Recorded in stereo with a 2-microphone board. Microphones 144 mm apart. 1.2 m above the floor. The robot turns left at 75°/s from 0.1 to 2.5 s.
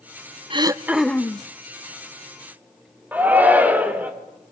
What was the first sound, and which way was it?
Throat clearing, 140° right.